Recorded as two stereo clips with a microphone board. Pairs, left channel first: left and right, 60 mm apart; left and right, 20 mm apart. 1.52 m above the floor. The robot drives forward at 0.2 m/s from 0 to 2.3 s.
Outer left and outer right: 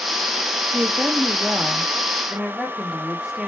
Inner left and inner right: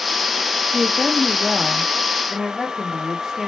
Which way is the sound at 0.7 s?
20° right (ahead or behind).